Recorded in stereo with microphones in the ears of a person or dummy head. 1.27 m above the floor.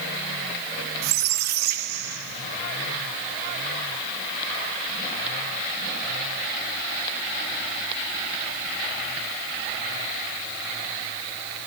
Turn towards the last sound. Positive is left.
turn(degrees=-50)  # may be behind; listen again after turning